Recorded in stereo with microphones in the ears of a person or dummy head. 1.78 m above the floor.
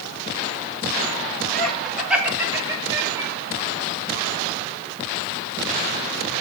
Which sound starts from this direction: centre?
Laughter, at 1.5 s.